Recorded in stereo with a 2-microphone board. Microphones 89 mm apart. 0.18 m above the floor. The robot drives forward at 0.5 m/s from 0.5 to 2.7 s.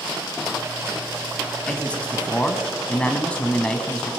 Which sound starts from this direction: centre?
A man speaking, at 1.7 s.